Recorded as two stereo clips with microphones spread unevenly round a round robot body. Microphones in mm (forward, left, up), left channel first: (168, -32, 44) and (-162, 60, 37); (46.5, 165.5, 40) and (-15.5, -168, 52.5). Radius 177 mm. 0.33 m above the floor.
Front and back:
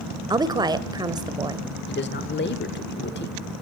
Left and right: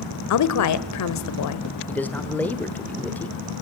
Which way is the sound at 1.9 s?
Straight ahead.